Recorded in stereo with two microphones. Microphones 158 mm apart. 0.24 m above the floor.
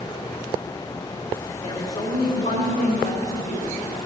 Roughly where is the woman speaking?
Left.